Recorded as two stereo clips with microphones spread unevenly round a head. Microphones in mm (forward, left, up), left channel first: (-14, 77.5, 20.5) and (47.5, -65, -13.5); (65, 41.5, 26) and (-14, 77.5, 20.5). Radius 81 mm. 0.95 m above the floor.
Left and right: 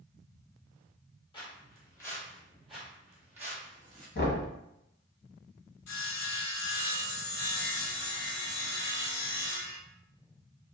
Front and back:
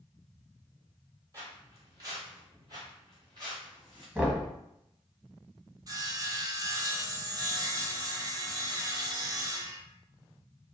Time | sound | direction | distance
1.3 | footsteps | 120° left | 1.1 m
4.2 | knocking | 80° left | 1.0 m
5.9 | sawing | 105° left | 0.6 m